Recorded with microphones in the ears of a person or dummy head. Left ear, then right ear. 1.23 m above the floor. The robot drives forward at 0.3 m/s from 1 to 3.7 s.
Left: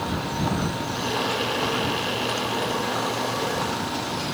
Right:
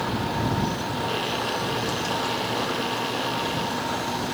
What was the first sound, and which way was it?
Only background noise.